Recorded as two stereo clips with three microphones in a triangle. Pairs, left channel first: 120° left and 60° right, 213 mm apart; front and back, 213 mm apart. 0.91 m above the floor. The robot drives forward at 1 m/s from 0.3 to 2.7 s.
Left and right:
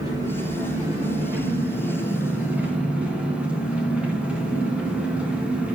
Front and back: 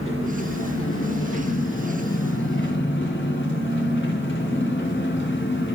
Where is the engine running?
15° left, 5 m; by 5.8 s 25° left, 2.5 m.